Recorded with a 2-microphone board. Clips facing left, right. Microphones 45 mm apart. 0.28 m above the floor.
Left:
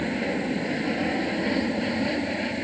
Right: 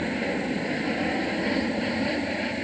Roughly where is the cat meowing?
No cat meowing in this recording.